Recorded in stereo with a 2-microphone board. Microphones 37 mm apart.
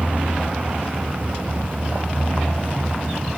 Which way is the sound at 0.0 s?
30° right (ahead or behind).